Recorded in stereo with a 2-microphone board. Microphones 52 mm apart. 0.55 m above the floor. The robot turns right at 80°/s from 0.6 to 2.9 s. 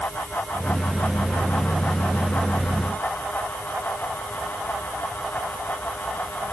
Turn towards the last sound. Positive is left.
No sound to turn to.